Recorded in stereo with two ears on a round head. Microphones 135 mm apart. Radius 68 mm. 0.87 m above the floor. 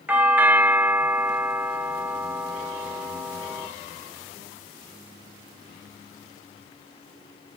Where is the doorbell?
10° right (ahead or behind), 0.8 m.